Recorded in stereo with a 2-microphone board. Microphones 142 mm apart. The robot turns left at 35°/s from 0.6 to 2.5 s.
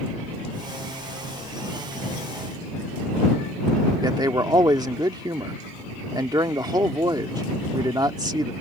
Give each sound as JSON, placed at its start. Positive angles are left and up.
{"t": 4.0, "sound": "a man speaking", "side_deg": -30}